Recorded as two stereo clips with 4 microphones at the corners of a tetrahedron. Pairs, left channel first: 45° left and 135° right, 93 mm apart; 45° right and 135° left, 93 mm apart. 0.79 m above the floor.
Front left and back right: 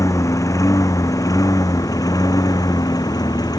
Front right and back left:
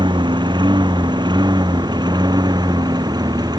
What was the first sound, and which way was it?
A lawn mower, 100° left.